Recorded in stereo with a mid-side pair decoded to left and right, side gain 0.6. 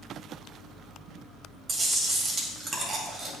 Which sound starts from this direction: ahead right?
Chewing, at 1.7 s.